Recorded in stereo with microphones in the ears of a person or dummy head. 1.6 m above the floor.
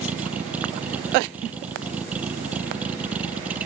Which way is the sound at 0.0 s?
10° right (ahead or behind).